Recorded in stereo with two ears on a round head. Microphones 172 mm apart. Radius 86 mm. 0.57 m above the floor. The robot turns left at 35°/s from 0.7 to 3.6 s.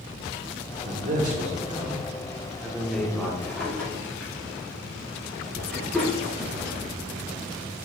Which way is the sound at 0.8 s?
110° right.